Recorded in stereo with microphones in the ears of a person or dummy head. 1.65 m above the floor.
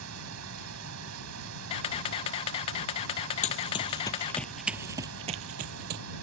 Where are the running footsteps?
35° left (ahead or behind); by 6.0 s 55° right (ahead or behind).